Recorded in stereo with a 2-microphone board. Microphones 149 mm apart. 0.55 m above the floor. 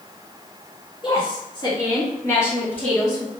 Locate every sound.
1.0 s a woman speaking: 35° left (ahead or behind), 1.7 m; by 3.3 s centre (ahead or behind), 1.3 m